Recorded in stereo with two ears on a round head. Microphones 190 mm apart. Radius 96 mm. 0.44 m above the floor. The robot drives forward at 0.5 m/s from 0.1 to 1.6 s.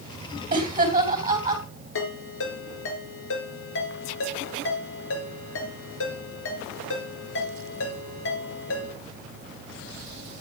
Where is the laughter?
25° right (ahead or behind), 2.5 m; by 1.6 s 20° right (ahead or behind), 3 m.